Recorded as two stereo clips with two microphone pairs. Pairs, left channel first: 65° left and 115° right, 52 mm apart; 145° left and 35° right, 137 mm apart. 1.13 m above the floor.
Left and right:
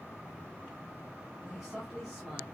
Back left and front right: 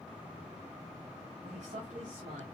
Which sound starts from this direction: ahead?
A man speaking, at 1.4 s.